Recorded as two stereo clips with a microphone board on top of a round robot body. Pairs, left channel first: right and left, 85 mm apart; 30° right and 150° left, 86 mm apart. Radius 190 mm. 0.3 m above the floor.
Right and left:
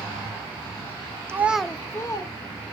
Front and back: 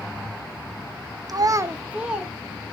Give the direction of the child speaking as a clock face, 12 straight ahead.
7 o'clock.